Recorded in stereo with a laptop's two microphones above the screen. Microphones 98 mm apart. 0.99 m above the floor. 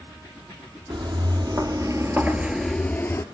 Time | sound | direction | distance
0.9 | footsteps | 60° right (ahead or behind) | 2 m